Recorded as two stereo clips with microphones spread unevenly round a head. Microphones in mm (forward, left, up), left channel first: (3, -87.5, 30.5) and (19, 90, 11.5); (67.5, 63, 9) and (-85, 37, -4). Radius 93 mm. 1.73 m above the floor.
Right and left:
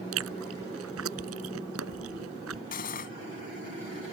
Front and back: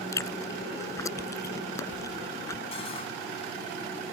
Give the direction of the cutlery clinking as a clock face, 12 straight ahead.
2 o'clock.